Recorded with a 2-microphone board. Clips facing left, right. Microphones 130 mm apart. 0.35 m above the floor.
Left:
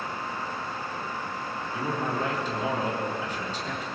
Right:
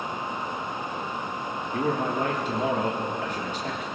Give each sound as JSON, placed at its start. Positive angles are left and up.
{"t": 1.7, "sound": "a man speaking", "side_deg": -55, "distance_m": 4.5}